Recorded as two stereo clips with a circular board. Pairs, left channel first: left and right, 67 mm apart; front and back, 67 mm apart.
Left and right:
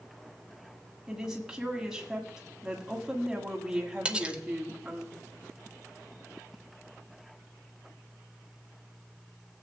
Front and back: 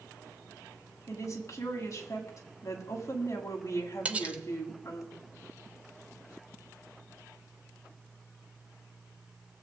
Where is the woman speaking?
15° right, 1.8 m.